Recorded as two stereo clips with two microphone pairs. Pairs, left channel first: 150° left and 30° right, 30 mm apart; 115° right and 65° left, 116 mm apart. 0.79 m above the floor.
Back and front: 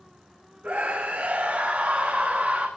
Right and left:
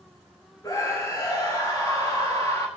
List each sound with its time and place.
0.6 s a scream: 55° right, 4.5 m